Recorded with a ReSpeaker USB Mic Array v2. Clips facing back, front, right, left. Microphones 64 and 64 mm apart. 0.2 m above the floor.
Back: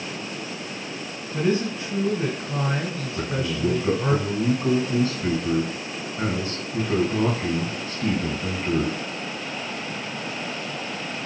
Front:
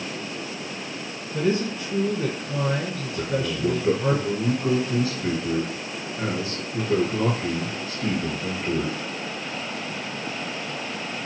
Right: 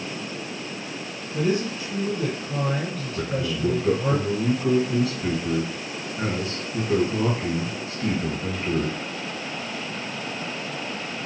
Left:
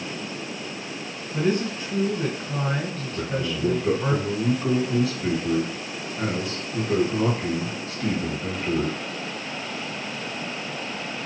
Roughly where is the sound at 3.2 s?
Behind.